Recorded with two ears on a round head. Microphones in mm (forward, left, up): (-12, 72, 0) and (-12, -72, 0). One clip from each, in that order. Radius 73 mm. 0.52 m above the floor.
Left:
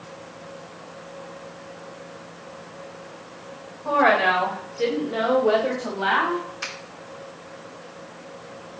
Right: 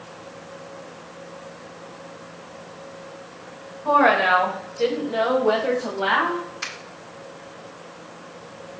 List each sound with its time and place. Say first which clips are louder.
3.9 s a woman speaking: right 2 dB; centre (ahead or behind), 2 m; by 6.4 s 5° left (ahead or behind), 3.5 m
6.6 s a finger snap: right 1 dB; 5° right (ahead or behind), 2.5 m